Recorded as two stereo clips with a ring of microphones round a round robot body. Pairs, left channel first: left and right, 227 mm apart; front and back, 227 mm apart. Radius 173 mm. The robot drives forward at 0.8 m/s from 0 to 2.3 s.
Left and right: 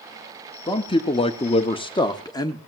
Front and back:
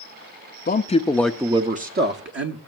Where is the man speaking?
30° left, 0.8 m; by 2.6 s 160° left, 1.1 m.